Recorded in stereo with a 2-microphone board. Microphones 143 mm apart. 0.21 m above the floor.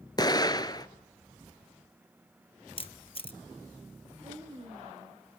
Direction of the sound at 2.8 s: 40° left (ahead or behind).